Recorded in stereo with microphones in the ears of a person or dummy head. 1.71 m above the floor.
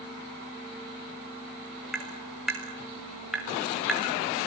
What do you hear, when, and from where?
1.9 s tapping: 5° right (ahead or behind), 4 m